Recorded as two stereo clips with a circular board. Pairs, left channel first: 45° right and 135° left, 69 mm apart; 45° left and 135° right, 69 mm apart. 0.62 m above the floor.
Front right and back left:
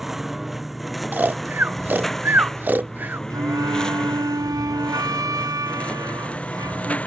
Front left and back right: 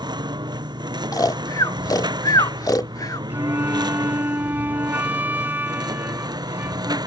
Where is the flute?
165° left.